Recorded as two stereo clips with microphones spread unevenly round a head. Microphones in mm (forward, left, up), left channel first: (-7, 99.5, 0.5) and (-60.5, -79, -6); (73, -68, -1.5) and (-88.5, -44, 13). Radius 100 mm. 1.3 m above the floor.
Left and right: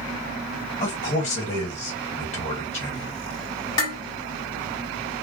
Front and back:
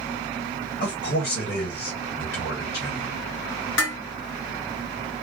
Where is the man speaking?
15° left, 1.5 m.